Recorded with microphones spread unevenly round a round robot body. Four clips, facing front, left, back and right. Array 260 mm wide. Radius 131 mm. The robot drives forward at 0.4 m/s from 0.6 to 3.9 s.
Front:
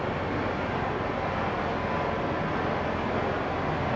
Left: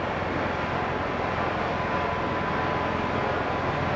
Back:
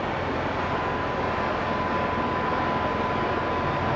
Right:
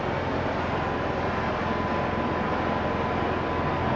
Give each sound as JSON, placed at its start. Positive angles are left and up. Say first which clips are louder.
{"t": 0.0, "sound": "running water", "louder": "even, back 2 dB", "azimuth_deg": -125, "distance_m": 5.0}